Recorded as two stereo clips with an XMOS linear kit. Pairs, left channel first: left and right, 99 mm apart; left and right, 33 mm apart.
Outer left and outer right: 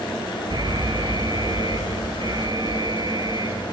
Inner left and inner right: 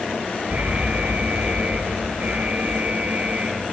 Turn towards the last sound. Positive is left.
turn(degrees=-45)  # may be behind; listen again after turning